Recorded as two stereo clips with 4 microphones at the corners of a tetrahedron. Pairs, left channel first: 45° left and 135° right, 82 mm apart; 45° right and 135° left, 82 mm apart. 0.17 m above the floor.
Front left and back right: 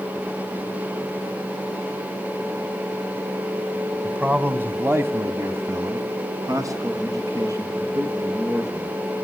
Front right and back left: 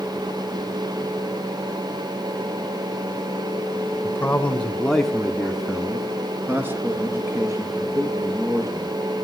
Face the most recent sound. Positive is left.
turn(degrees=180)